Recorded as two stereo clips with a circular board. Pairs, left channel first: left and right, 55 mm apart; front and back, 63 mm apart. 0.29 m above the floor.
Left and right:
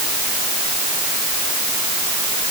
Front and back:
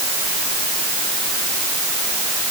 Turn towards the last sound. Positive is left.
No sound to turn to.